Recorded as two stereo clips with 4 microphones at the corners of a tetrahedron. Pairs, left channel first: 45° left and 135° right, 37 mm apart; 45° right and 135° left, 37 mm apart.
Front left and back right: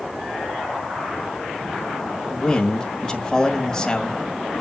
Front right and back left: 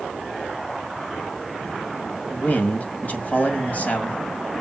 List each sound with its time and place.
2.3 s a man speaking: 25° right, 1.7 m